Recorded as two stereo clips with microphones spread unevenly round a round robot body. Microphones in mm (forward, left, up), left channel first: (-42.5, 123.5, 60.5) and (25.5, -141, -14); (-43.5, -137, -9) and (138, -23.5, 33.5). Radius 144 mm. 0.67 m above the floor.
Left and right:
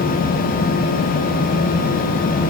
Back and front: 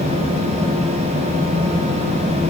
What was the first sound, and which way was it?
Only background noise.